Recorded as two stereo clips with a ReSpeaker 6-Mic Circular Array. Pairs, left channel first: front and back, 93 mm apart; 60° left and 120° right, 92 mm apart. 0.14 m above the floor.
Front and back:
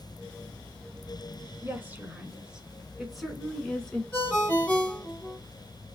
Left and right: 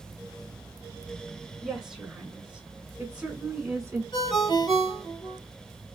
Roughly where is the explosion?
No explosion in this recording.